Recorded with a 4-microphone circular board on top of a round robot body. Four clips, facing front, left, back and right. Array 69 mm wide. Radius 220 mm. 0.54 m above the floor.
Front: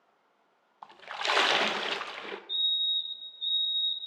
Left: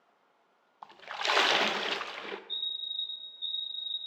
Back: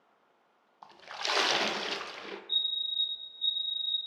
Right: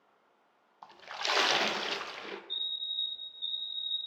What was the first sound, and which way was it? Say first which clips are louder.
A splash: left 3 dB, front 4 dB; 35° left.